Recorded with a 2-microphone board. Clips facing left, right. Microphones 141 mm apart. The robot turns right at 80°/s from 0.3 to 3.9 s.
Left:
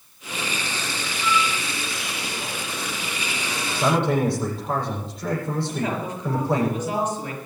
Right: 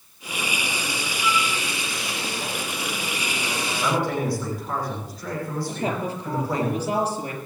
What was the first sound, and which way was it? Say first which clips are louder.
A flute: left 2 dB; 10° right (ahead or behind).